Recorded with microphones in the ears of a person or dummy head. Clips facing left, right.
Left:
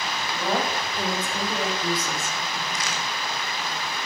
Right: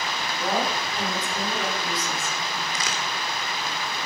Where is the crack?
60° right (ahead or behind), 1.9 m.